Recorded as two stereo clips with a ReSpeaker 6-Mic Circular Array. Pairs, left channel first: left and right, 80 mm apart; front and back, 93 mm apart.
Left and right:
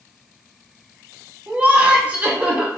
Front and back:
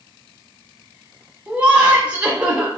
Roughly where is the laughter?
Behind right.